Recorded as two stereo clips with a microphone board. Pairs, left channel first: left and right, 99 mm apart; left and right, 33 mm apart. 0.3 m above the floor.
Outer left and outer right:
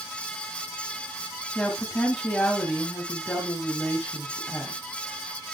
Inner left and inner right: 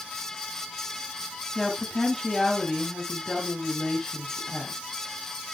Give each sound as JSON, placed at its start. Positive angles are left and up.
{"t": 1.6, "sound": "a woman speaking", "side_deg": 15, "distance_m": 2.5}